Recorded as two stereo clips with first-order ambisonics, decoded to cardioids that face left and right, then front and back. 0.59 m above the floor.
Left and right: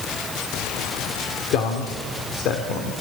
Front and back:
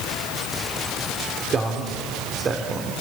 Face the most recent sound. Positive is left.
turn(degrees=120)